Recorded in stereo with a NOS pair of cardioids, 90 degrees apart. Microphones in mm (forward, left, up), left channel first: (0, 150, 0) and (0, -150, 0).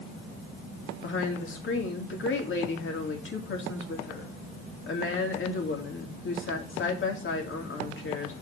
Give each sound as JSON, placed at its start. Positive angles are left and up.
{"t": 1.0, "sound": "a woman speaking", "azimuth_deg": 40, "distance_m": 2.5}